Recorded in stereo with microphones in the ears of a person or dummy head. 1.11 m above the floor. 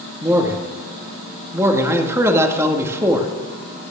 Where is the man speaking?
15° right (ahead or behind), 2 m.